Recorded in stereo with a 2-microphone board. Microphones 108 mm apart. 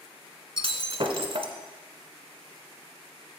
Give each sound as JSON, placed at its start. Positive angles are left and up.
{"t": 0.6, "sound": "breaking glass", "side_deg": -55, "distance_m": 0.8}